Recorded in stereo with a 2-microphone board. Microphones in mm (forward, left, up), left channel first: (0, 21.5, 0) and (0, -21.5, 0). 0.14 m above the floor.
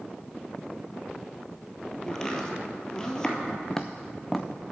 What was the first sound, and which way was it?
Chopping, 15° left (ahead or behind).